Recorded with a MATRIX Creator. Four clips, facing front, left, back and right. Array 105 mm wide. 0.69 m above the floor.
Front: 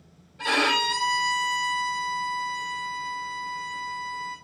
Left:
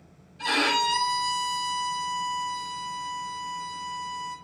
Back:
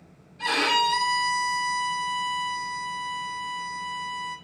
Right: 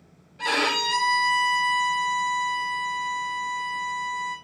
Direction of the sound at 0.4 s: 65° right.